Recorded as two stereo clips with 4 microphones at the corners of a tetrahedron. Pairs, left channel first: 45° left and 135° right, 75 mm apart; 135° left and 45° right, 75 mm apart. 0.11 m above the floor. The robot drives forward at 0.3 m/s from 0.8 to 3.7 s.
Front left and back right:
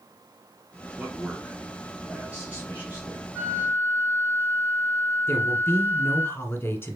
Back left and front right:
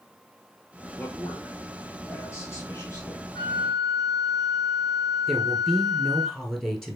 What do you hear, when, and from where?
1.0 s a man speaking: 160° left, 1.2 m; by 3.2 s 170° left, 1.6 m
3.4 s a flute: 155° left, 2.5 m; by 6.3 s 160° left, 2.5 m
5.3 s a woman speaking: 55° left, 1.3 m